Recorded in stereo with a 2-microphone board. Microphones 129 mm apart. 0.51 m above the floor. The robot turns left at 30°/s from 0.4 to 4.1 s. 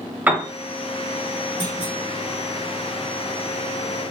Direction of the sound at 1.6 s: 30° left (ahead or behind).